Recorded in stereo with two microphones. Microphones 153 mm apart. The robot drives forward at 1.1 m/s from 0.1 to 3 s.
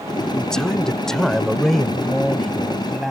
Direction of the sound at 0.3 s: 5° left (ahead or behind).